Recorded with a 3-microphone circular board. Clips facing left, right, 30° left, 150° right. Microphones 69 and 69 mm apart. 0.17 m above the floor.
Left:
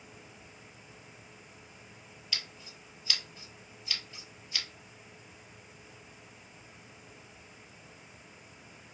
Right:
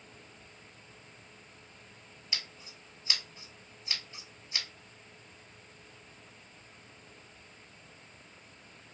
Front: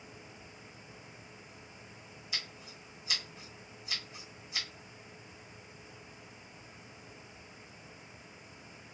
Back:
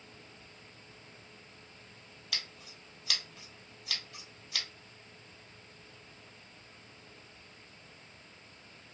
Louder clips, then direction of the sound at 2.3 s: Even, even; 160° right.